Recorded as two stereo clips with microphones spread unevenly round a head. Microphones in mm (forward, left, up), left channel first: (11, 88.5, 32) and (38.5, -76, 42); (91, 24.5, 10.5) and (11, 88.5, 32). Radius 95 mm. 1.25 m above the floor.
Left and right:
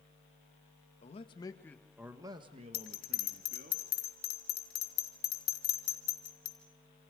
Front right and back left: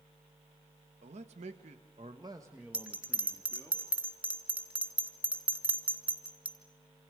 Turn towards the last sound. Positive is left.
turn(degrees=70)